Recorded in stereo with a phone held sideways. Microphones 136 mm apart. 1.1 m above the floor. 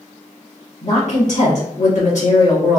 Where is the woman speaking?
65° left (ahead or behind), 1.7 m.